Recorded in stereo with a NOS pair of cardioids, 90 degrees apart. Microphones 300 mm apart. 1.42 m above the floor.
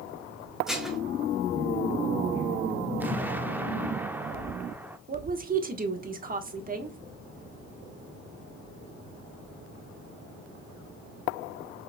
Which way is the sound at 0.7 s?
Straight ahead.